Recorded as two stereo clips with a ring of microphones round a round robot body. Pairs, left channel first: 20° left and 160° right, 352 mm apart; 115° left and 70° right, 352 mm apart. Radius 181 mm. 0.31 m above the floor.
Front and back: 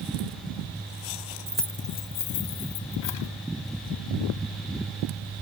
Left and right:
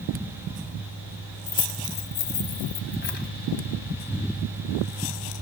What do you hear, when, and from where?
1.5 s keys jangling: 135° left, 0.7 m; by 3.3 s 50° left, 1.7 m